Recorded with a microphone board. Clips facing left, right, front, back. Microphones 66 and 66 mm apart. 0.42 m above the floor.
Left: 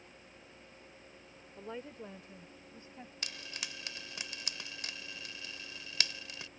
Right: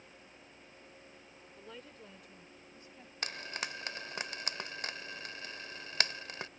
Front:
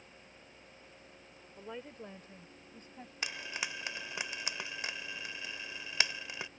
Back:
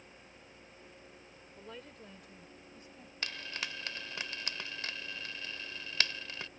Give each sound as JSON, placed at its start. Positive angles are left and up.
{"t": 1.6, "sound": "a woman speaking", "azimuth_deg": 65}
{"t": 3.2, "sound": "frying", "azimuth_deg": -70}